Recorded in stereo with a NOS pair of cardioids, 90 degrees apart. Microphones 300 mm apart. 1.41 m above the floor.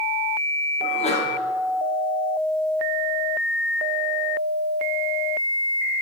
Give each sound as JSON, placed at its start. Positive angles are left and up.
{"t": 0.8, "sound": "a sneeze", "azimuth_deg": 20, "distance_m": 1.5}